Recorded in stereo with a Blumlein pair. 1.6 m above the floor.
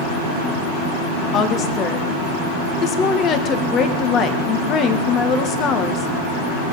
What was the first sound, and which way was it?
A woman speaking, 30° left.